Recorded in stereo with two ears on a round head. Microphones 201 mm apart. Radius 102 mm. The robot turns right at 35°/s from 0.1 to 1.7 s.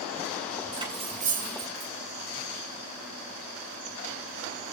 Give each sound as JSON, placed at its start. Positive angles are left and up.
{"t": 0.7, "sound": "cutlery clinking", "side_deg": -20, "distance_m": 8.5}